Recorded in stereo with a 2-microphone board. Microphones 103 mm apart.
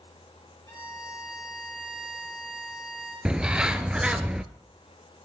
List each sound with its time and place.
0.7 s a violin: 35° left (ahead or behind), 5.5 m
3.2 s a bird: 10° right (ahead or behind), 0.5 m